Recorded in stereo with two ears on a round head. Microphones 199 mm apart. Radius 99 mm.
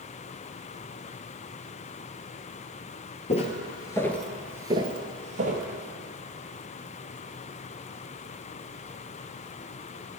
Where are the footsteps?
30° left (ahead or behind), 1.6 m; by 5.7 s 35° right (ahead or behind), 1.9 m.